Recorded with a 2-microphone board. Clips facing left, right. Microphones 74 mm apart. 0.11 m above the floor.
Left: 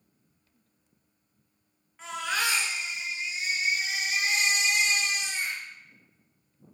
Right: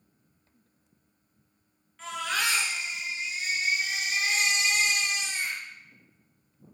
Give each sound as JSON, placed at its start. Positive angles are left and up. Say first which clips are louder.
{"t": 2.0, "sound": "a baby crying", "louder": "even", "side_deg": 15, "distance_m": 0.6}